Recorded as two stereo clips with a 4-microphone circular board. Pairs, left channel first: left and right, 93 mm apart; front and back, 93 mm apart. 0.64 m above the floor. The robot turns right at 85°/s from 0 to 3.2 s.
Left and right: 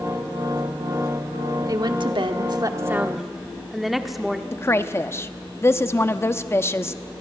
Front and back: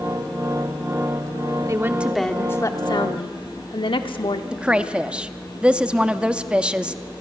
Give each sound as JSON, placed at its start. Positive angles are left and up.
{"t": 1.7, "sound": "a woman speaking", "azimuth_deg": -135, "distance_m": 1.1}
{"t": 4.5, "sound": "a woman speaking", "azimuth_deg": 115, "distance_m": 0.6}